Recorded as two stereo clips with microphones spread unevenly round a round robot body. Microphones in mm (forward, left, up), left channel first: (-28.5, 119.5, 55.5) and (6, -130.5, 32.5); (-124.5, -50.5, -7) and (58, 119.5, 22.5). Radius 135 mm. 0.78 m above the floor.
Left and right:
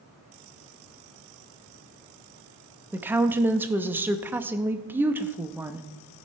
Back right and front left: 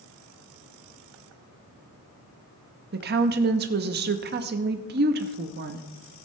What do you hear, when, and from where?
2.9 s a woman speaking: 5° right, 0.8 m